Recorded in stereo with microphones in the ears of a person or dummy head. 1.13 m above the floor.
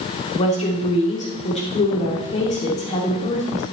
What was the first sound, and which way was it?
A woman speaking, 30° left (ahead or behind).